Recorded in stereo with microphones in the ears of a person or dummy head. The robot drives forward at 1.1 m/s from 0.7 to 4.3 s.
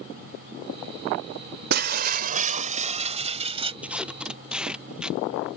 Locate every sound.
1.7 s breaking glass: 50° right (ahead or behind); by 3.7 s 25° right (ahead or behind)
3.8 s tape being pulled: 10° right (ahead or behind); by 5.6 s 5° right (ahead or behind)